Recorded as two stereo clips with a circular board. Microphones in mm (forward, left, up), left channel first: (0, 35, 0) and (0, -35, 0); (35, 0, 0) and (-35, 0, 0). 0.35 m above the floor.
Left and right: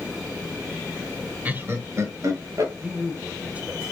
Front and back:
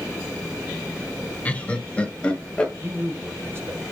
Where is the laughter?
50° right, 1.5 m; by 2.7 s 75° right, 2.5 m.